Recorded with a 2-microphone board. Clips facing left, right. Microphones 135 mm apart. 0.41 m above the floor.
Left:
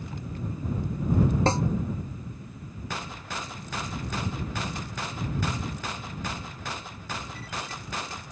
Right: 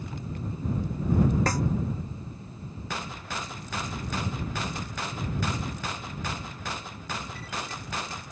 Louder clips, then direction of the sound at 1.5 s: Left 3 dB; 25° left (ahead or behind).